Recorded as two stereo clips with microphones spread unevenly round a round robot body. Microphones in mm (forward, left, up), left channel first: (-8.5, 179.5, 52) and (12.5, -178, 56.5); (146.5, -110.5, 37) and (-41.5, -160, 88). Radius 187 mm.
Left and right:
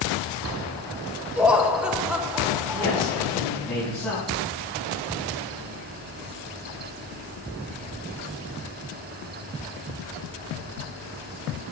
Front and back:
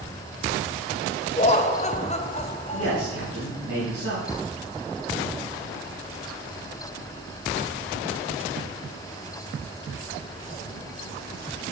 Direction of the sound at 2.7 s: Straight behind.